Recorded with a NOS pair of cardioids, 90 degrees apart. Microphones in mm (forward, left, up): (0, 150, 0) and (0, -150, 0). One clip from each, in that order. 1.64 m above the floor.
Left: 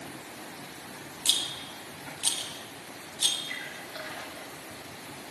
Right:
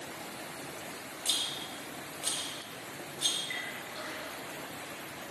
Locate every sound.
1.2 s a rattle: 55° left, 0.9 m
3.5 s a splash: 65° left, 2.5 m